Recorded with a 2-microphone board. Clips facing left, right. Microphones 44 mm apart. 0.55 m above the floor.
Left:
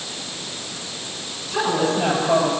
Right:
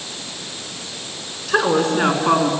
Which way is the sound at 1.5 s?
70° right (ahead or behind).